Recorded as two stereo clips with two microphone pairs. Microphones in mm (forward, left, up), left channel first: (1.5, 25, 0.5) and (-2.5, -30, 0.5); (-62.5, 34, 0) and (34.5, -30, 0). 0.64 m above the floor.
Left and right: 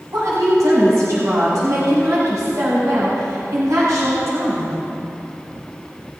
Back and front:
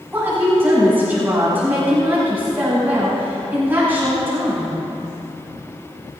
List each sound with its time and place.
0.1 s a woman speaking: 105° right, 5 m